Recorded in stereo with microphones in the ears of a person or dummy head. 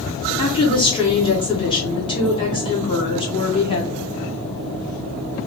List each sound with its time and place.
0.4 s a woman speaking: 30° left (ahead or behind), 1.0 m